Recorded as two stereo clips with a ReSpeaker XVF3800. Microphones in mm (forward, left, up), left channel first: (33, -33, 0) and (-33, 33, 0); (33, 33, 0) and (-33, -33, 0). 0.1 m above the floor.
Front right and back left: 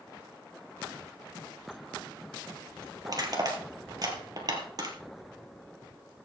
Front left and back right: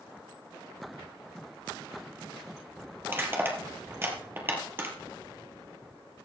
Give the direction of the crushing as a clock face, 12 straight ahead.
7 o'clock.